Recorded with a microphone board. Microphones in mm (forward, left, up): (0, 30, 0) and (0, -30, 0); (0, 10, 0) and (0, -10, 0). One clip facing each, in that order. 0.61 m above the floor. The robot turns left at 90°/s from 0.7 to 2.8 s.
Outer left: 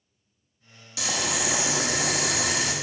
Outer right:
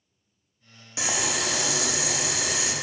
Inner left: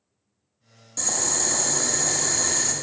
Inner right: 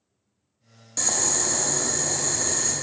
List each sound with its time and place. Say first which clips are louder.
1.0 s boiling: even, inner right 1 dB; 150° right, 0.6 m; by 2.7 s 55° left, 0.6 m